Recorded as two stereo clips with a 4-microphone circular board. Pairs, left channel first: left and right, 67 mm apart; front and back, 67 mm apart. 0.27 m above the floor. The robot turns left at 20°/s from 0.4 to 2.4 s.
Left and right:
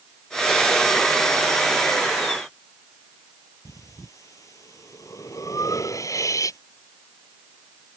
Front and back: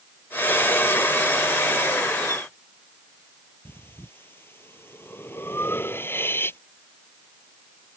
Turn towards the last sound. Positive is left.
turn(degrees=55)